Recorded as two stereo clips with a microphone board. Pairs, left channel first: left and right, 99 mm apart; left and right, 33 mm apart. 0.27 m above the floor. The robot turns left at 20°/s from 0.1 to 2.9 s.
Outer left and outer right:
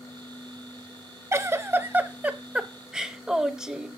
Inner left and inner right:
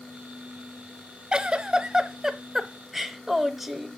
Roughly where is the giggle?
Behind right.